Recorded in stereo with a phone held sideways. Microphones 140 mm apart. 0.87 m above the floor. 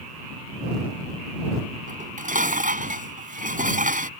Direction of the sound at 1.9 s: 65° right (ahead or behind).